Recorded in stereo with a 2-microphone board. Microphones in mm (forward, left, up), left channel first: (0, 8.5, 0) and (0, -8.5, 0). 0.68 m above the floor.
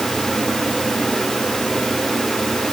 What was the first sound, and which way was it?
Only background noise.